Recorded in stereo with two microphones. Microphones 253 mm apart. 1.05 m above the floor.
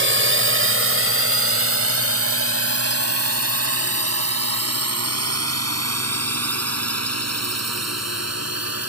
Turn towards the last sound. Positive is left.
turn(degrees=-85)